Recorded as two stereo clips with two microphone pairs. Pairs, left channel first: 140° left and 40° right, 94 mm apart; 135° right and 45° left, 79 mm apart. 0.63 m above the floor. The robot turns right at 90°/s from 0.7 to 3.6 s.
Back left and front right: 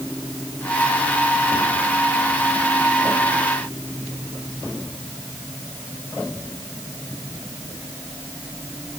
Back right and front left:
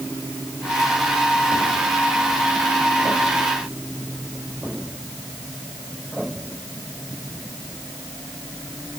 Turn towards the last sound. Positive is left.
No sound to turn to.